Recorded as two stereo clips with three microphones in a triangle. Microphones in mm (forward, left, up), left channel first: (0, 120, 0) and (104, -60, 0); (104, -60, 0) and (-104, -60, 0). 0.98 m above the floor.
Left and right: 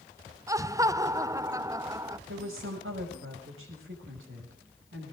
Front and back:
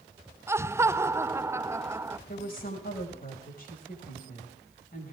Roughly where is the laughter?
Behind right.